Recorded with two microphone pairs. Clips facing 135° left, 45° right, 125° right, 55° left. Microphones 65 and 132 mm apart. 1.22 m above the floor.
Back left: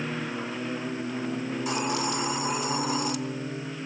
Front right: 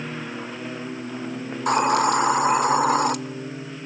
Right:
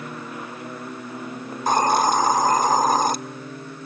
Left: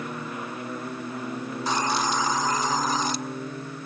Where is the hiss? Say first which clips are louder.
Front right 12 dB, right 8 dB; 85° right, 0.5 m.